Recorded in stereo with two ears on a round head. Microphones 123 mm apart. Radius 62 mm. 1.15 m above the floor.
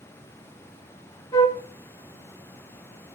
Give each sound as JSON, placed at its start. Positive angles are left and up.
{"t": 1.3, "sound": "a flute", "side_deg": 20, "distance_m": 0.8}